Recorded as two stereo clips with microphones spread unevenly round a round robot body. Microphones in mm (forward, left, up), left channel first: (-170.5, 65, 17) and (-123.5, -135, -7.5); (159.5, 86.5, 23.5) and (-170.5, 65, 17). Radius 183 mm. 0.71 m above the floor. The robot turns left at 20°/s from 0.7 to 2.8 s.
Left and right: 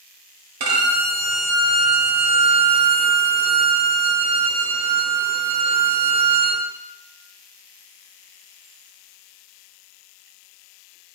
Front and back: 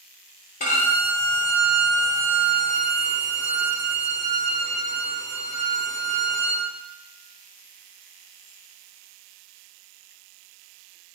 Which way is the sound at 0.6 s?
65° right.